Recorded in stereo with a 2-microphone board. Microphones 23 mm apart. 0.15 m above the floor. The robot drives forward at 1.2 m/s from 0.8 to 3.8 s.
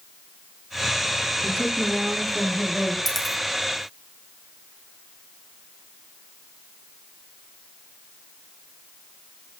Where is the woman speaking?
10° right (ahead or behind), 3.5 m; by 3.0 s 5° right (ahead or behind), 5.5 m.